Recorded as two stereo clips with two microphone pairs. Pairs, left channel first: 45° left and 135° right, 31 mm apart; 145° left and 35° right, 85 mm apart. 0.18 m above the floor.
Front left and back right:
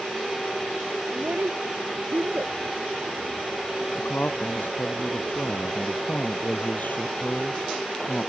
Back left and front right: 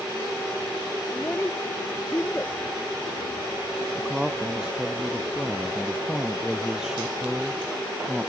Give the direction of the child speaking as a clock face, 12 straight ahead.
5 o'clock.